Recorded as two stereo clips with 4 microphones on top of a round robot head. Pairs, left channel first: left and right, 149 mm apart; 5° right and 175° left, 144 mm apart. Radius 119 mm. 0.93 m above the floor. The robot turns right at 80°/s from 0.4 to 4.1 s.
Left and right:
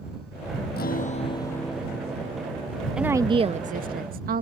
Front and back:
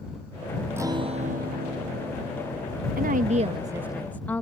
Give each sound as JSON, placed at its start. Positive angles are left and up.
{"t": 0.8, "sound": "a guitar", "azimuth_deg": 100}
{"t": 3.0, "sound": "a woman speaking", "azimuth_deg": -175}